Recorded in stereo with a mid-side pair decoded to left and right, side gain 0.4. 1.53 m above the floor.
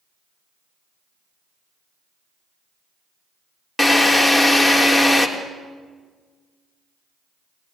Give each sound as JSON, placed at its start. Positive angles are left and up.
{"t": 3.8, "sound": "a drill", "azimuth_deg": 0, "distance_m": 3.5}